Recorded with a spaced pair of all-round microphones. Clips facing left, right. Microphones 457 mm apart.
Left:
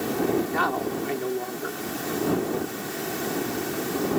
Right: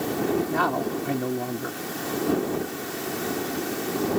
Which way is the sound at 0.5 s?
60° right (ahead or behind).